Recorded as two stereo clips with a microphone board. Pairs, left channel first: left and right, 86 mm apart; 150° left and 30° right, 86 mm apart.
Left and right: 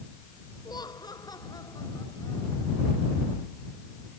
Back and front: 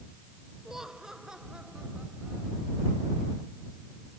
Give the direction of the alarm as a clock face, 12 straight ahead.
I don't hear an alarm.